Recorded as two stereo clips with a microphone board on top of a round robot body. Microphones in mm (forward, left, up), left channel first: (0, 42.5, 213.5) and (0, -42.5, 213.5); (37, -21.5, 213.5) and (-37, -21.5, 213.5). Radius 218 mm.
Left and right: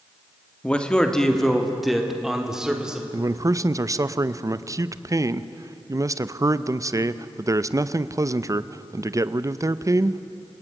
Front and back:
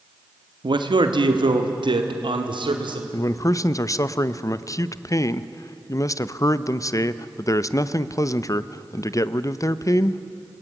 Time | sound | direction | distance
0.6 | a man speaking | 165° left | 1.7 m
3.1 | a man speaking | 45° right | 0.9 m